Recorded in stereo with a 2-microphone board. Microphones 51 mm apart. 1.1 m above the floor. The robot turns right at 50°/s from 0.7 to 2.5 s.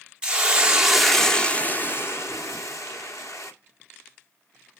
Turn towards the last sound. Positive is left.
turn(degrees=75)